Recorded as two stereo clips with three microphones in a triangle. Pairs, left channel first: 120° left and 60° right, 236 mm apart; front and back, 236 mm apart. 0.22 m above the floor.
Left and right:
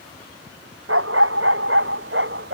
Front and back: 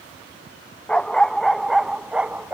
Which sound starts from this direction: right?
A dog barking, at 0.9 s.